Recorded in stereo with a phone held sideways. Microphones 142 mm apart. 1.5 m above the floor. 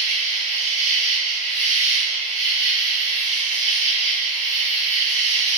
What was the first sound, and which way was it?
An insect, 45° left (ahead or behind).